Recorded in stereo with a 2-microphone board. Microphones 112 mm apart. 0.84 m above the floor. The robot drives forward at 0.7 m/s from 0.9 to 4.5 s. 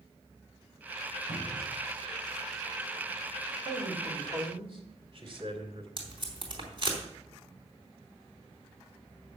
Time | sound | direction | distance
1.3 | a cupboard door | 75° right (ahead or behind) | 3.5 m
3.6 | a man speaking | 55° right (ahead or behind) | 2.5 m
6.0 | tape being pulled | 45° right (ahead or behind) | 3 m